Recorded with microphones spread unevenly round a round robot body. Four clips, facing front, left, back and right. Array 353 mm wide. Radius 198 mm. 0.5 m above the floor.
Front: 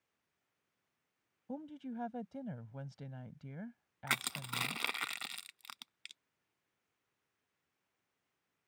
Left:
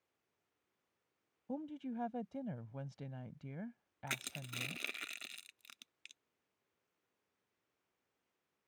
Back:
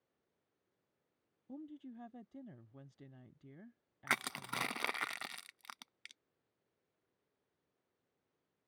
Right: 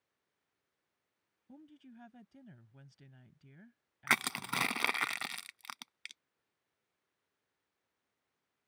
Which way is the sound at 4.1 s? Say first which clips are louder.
Right 13 dB, back 1 dB; 85° right.